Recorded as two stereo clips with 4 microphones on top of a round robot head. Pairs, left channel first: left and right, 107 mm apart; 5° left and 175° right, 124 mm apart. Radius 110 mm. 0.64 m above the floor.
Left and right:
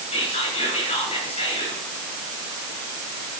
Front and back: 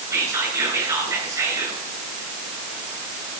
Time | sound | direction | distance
0.1 | whispering | 125° left | 7.5 m